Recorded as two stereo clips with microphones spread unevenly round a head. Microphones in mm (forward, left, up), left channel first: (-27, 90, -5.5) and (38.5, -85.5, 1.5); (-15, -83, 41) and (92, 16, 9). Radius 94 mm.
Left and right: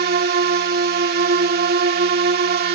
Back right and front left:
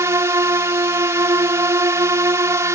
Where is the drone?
30° right.